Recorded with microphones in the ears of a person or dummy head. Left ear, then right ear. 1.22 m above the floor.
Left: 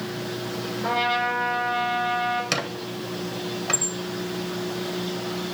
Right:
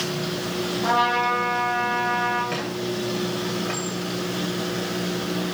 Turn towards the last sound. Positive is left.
turn(degrees=75)  # may be behind; listen again after turning